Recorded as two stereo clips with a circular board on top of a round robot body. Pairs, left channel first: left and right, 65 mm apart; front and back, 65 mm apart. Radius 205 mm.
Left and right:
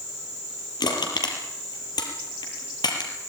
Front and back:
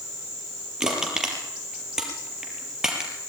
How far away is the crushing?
About 4.5 m.